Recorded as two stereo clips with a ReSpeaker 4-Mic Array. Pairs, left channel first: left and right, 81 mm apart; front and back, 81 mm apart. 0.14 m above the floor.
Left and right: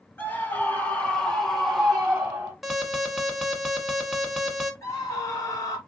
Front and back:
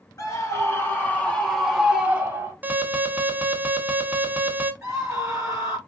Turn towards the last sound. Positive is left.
turn(degrees=120)